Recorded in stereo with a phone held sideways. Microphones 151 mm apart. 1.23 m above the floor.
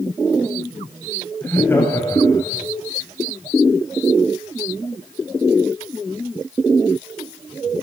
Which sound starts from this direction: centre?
Laughter, at 1.4 s.